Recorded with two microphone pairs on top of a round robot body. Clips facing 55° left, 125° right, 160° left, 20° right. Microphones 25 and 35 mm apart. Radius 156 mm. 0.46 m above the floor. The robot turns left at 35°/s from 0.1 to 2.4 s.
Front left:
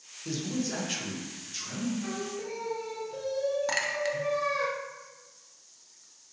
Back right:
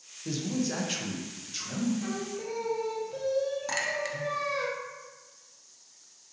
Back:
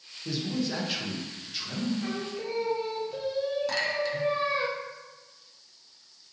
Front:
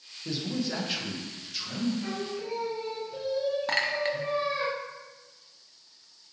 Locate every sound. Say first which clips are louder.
0.2 s a man speaking: back right 1 dB, back 1 dB; 65° right, 0.8 m; by 1.9 s 125° right, 0.8 m
2.0 s singing: back right 1 dB, back 1 dB; 170° right, 0.8 m; by 4.7 s straight behind, 0.8 m
3.7 s a clink: front left 2 dB, front 1 dB; 20° right, 0.6 m